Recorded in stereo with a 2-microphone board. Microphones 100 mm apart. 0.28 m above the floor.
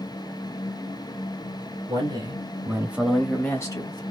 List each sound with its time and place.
1.9 s a man speaking: 50° right (ahead or behind), 2.5 m; by 4.0 s 50° left (ahead or behind), 1.6 m